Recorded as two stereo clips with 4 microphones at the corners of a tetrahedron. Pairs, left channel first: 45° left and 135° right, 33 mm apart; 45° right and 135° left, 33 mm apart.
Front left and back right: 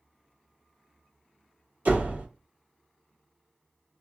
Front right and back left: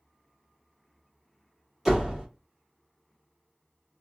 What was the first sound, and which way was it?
A door slam, 145° right.